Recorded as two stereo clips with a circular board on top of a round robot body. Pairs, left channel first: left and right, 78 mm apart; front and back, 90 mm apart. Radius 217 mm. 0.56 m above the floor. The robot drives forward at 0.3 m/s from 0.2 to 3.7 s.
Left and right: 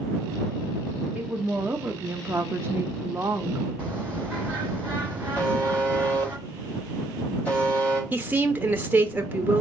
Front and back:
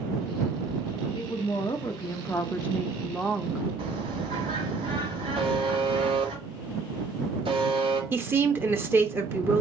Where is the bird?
160° right, 1.6 m.